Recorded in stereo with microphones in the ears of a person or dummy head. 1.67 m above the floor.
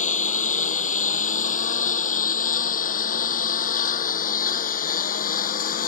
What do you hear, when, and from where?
0.0 s a lawn mower: 40° left (ahead or behind); by 5.9 s 45° left (ahead or behind)